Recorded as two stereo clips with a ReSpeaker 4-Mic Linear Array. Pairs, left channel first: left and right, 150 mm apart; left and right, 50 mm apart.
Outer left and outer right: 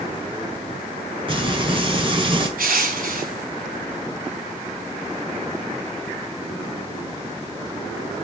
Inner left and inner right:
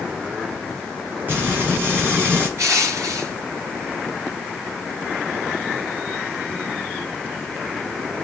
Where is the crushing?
70° right (ahead or behind), 2.5 m.